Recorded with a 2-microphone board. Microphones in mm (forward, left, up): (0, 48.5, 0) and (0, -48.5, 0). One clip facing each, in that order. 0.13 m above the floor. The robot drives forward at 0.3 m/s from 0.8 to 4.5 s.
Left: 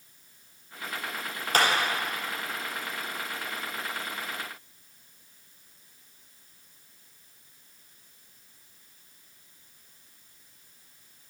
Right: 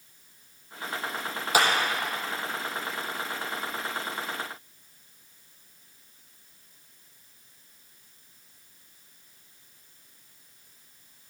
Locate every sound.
1.5 s a clap: 10° right (ahead or behind), 4 m